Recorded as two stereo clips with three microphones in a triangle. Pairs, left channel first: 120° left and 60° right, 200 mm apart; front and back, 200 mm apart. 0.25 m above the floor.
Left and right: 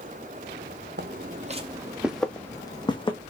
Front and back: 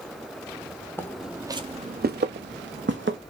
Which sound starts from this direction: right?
Footsteps, at 1.0 s.